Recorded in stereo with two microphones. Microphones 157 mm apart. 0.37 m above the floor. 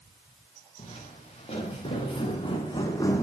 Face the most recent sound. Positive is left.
turn(degrees=15)  # may be behind; listen again after turning